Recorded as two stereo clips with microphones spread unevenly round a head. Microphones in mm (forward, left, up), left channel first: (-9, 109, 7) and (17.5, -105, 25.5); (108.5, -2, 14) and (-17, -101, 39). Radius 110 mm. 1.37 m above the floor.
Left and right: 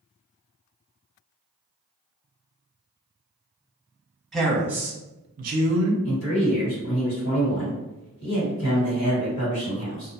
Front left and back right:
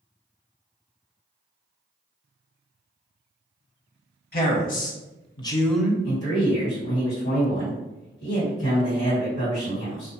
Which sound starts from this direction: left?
A man speaking, at 6.0 s.